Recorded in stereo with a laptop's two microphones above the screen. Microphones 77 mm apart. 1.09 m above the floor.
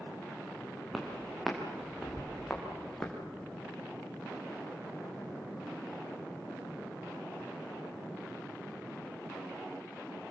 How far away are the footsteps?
About 6 m.